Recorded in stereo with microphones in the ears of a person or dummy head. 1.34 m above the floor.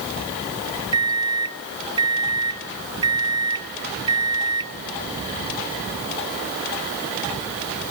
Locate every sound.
0.9 s a microwave: 25° right (ahead or behind), 0.6 m